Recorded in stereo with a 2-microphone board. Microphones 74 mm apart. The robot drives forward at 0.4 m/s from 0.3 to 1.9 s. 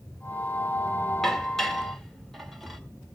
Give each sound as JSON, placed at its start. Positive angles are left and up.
{"t": 1.2, "sound": "dishes clattering", "side_deg": 5, "distance_m": 1.8}